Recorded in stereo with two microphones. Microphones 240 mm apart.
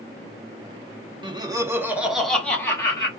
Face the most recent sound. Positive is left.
turn(degrees=15)  # may be behind; listen again after turning